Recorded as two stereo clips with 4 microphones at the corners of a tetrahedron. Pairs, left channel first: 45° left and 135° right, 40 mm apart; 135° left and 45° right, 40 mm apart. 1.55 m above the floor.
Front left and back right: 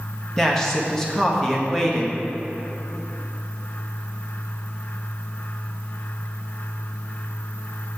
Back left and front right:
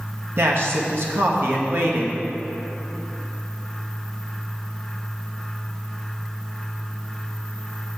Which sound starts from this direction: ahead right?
A man speaking, at 0.4 s.